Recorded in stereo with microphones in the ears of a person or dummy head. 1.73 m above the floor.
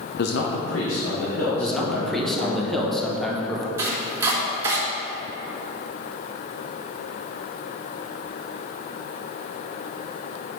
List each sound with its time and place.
0.2 s a man speaking: 60° left (ahead or behind), 0.6 m; by 2.6 s 80° left, 4 m
1.6 s a man speaking: 5° left (ahead or behind), 1.2 m
3.8 s chopping: 15° right (ahead or behind), 1.4 m